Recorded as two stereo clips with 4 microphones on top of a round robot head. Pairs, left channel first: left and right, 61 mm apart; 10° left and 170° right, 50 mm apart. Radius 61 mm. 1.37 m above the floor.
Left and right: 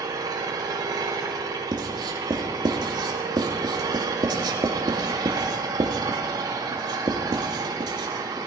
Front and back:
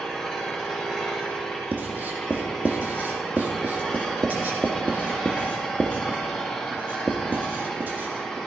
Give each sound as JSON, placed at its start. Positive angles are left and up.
{"t": 0.0, "sound": "an engine running", "azimuth_deg": -75, "distance_m": 4.0}
{"t": 1.7, "sound": "writing", "azimuth_deg": -105, "distance_m": 1.7}